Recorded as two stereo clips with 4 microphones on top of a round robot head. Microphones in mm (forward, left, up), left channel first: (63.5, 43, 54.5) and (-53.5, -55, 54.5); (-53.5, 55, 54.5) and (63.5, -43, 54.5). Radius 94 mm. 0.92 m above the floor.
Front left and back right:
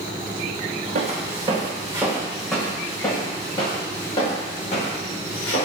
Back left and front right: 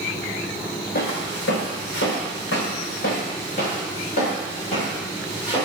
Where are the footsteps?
175° left, 3 m; by 5.7 s 85° left, 7 m.